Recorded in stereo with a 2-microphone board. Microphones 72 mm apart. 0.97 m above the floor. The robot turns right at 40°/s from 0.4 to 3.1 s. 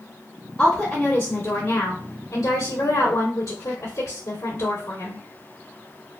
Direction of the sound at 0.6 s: 5° right.